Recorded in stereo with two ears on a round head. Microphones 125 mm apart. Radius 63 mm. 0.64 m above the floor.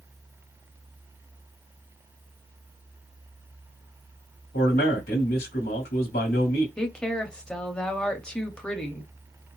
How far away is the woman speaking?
About 0.8 m.